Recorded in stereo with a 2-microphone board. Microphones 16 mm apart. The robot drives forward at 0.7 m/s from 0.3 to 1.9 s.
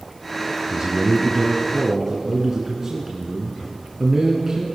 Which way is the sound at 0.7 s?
35° right (ahead or behind).